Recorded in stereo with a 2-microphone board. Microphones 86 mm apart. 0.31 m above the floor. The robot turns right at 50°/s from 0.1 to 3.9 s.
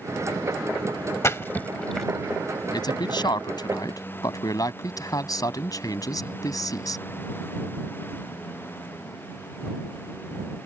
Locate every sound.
1.2 s a splash: 30° left (ahead or behind); by 2.1 s centre (ahead or behind)
2.7 s a man speaking: 65° left; by 7.0 s 125° left